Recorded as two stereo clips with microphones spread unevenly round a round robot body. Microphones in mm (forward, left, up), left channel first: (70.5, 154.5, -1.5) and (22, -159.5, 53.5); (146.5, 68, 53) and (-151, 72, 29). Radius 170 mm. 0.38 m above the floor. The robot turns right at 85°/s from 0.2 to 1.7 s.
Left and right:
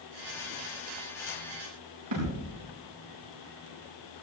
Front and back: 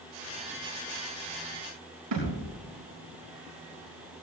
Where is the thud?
135° right, 9 m.